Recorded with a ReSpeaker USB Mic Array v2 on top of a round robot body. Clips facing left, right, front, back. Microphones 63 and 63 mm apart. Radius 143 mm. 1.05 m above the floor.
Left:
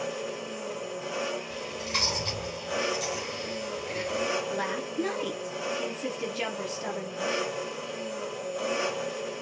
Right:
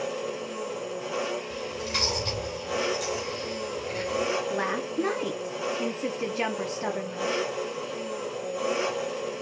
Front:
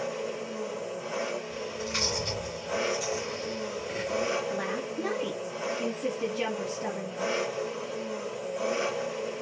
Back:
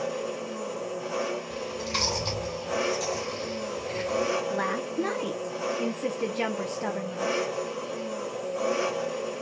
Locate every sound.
0.0 s an engine running: 175° left, 0.8 m
1.5 s chewing: straight behind, 1.8 m
4.5 s a woman speaking: 150° right, 0.6 m